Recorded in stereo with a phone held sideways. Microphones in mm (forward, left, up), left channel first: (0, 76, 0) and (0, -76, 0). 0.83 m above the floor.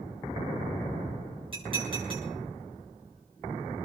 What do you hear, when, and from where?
1.5 s dishes clattering: 35° right (ahead or behind), 8 m